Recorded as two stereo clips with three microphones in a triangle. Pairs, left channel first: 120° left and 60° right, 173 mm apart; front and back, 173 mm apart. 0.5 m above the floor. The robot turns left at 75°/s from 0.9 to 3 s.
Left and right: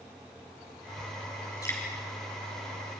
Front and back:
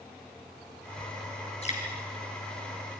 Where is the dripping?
50° left, 5 m; by 1.8 s 40° left, 5 m.